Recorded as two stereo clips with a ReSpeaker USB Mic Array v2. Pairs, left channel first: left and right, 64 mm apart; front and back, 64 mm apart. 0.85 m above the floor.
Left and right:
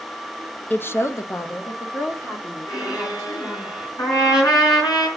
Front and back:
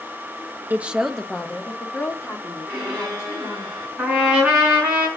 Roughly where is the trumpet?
Left.